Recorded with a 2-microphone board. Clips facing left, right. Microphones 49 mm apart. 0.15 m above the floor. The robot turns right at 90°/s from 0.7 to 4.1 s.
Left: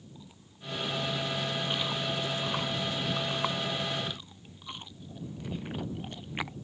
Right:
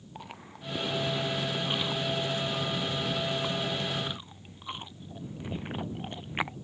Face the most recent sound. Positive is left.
turn(degrees=-20)  # may be behind; listen again after turning